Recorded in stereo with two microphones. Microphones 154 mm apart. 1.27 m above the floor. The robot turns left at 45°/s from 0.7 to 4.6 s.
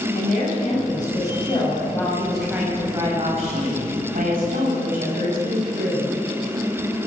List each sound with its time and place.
0.1 s a woman speaking: 75° left, 6 m; by 6.1 s 100° right, 6 m